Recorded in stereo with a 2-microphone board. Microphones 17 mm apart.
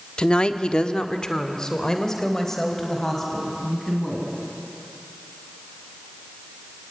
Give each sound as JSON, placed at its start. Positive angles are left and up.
{"t": 0.2, "sound": "a woman speaking", "side_deg": 60, "distance_m": 1.1}